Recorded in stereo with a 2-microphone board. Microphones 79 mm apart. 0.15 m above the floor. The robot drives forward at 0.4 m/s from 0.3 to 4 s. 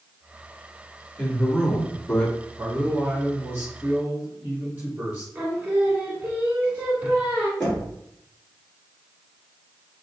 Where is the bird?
I don't hear a bird.